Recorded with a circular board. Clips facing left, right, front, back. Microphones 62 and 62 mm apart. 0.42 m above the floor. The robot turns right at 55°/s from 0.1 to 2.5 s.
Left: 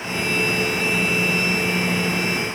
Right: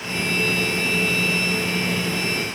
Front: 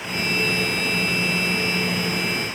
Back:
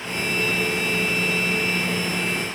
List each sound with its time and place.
Only background noise.